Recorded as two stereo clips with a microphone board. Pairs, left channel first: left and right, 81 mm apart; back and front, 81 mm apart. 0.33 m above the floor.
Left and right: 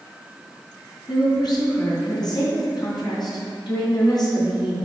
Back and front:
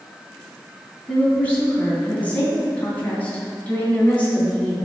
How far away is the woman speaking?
About 3 m.